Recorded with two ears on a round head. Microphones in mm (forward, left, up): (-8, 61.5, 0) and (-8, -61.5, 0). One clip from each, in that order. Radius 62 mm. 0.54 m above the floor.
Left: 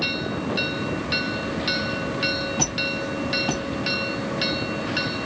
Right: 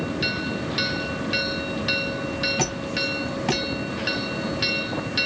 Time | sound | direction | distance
2.6 | a squeak | 55° right (ahead or behind) | 1.9 m